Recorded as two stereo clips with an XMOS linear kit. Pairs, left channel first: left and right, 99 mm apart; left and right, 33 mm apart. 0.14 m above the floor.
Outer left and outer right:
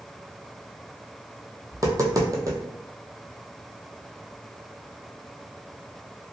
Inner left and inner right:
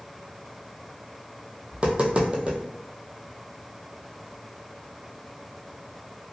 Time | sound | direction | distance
1.7 | tapping | 35° right (ahead or behind) | 0.7 m